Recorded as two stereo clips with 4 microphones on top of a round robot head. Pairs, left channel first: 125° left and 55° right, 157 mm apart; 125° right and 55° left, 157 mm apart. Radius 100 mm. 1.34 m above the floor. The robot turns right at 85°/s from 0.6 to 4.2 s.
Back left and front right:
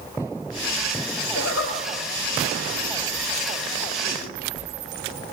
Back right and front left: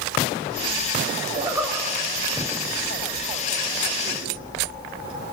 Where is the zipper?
110° left, 6 m; by 5.3 s 5° right, 6 m.